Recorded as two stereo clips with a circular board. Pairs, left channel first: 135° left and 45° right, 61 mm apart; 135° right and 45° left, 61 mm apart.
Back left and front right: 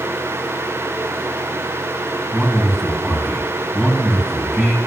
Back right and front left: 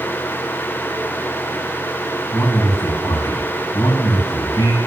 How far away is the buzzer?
I don't hear a buzzer.